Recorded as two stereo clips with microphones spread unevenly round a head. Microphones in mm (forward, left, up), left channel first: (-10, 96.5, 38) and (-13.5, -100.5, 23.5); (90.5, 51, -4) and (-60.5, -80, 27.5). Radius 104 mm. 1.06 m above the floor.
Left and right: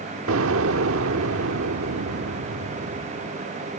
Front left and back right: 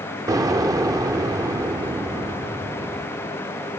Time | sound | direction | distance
0.3 | an explosion | 75° right | ?